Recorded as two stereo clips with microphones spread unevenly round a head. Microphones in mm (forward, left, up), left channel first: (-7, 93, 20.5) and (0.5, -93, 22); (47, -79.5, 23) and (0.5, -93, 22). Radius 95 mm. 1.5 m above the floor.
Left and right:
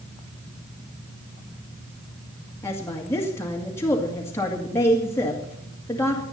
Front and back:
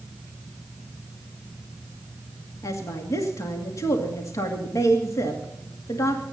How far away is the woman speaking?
About 2 m.